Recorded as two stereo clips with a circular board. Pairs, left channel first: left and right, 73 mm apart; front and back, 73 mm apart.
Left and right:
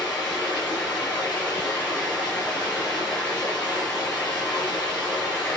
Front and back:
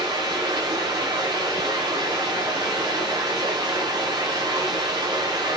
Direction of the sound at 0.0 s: 160° left.